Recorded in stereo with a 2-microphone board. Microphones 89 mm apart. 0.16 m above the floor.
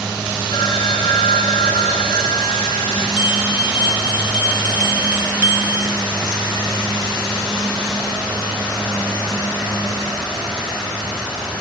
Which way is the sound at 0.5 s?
55° left (ahead or behind).